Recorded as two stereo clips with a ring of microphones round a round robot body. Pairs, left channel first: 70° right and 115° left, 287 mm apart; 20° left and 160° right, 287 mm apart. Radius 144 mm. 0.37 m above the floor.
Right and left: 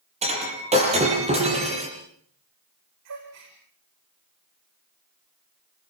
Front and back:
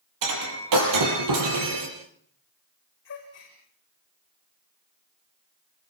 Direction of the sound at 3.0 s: 75° left.